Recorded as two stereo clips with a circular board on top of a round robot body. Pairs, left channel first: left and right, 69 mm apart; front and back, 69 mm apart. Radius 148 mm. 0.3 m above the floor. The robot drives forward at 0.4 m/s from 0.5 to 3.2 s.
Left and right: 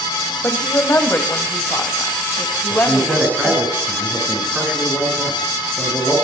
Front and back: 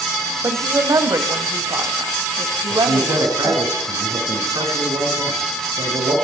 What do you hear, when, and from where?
0.4 s a woman speaking: 140° left, 2 m; by 3.7 s 155° left, 3 m
2.7 s a man speaking: 160° right, 5.5 m